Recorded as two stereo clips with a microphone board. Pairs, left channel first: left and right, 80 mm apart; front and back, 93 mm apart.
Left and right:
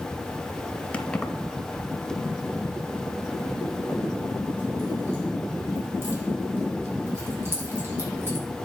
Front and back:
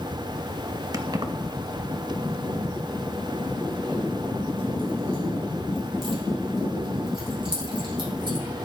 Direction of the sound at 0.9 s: 155° left.